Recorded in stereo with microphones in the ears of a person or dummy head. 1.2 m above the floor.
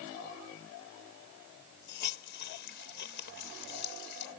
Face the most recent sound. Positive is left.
turn(degrees=60)  # may be behind; listen again after turning